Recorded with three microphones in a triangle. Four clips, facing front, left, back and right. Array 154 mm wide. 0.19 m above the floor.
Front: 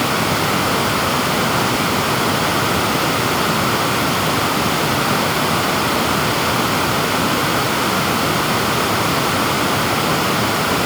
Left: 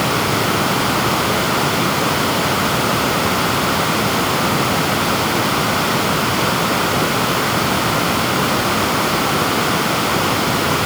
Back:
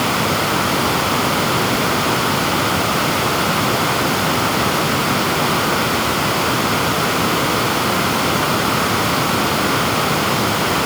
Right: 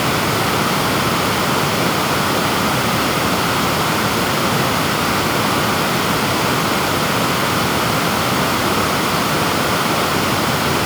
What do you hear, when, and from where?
Only background noise.